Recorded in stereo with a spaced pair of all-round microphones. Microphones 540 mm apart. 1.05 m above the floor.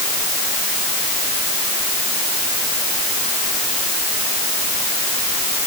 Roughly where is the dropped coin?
No dropped coin in this recording.